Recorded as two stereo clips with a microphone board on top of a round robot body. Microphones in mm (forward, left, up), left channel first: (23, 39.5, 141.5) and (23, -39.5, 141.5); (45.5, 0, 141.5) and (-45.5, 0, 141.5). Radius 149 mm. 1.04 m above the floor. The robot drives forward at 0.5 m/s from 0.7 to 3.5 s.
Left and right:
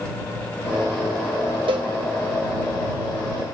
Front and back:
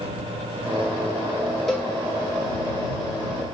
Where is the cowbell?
85° right, 0.5 m; by 1.9 s 100° right, 0.5 m.